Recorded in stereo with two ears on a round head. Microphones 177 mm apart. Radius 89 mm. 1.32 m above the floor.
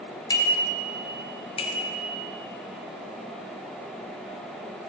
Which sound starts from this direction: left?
A bicycle bell, at 0.3 s.